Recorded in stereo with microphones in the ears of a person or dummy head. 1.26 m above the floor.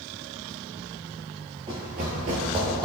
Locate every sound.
1.7 s running footsteps: 20° right (ahead or behind), 1.4 m; by 2.9 s 25° right (ahead or behind), 1.7 m